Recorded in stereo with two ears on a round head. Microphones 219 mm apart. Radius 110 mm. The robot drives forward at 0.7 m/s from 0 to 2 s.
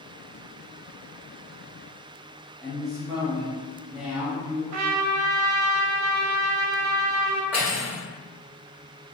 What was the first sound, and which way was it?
A woman speaking, 5° right (ahead or behind).